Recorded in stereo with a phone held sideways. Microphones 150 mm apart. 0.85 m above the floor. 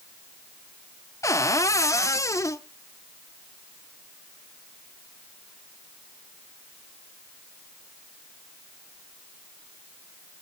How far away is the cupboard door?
About 0.5 m.